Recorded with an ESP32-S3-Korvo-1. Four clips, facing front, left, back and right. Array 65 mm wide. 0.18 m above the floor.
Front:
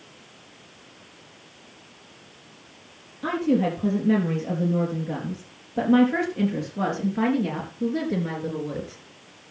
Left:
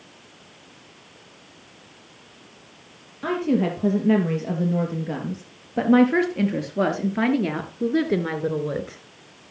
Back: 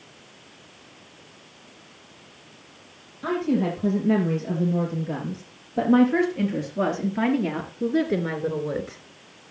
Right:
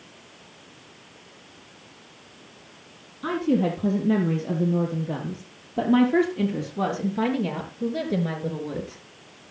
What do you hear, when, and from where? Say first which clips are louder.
3.2 s a woman speaking: left 1 dB, front 1 dB; 75° left, 5 m; by 9.0 s 120° left, 3 m